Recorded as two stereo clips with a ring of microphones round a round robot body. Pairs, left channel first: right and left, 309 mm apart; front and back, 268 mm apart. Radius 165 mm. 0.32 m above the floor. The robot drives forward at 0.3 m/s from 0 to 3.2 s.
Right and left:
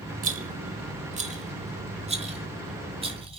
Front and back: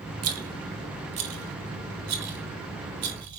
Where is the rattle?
155° left, 1.8 m; by 3.4 s 165° left, 2.5 m.